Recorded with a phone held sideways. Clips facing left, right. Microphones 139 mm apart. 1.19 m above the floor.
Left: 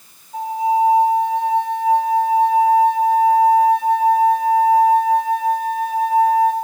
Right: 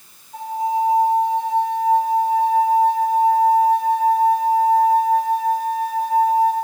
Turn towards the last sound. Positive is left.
turn(degrees=10)  # may be behind; listen again after turning